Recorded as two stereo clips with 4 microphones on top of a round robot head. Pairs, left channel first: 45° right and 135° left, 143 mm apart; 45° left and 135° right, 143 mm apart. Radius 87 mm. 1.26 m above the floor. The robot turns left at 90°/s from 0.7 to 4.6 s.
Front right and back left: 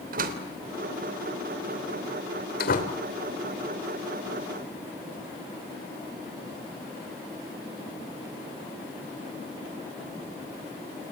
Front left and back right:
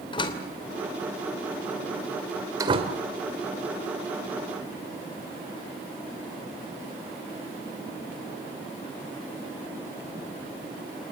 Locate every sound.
0.1 s a door slam: 105° left, 3 m; by 3.0 s 100° right, 3 m